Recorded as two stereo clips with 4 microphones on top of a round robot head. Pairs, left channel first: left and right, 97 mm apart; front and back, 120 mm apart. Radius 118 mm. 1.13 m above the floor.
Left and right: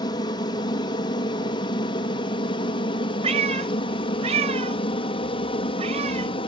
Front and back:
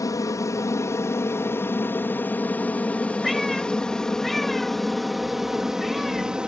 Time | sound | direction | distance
0.0 | an aircraft | 55° left | ?
3.2 | a cat meowing | 90° right | ?